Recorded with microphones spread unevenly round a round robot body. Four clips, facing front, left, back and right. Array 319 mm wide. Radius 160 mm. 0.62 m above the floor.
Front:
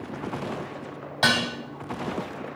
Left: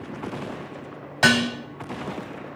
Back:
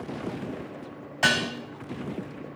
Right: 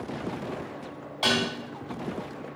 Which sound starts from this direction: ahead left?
Dishes clattering, at 1.2 s.